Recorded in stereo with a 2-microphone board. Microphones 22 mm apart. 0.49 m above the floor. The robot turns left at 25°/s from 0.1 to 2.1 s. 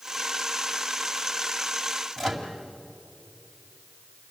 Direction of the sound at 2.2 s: 10° left (ahead or behind).